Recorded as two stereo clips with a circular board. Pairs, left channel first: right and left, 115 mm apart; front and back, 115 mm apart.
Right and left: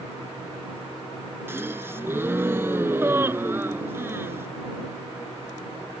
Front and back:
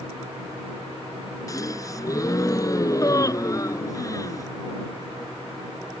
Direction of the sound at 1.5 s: 35° left.